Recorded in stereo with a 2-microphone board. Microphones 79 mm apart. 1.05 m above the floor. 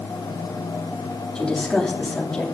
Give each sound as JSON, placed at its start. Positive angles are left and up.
{"t": 1.4, "sound": "a woman speaking", "side_deg": 10, "distance_m": 2.5}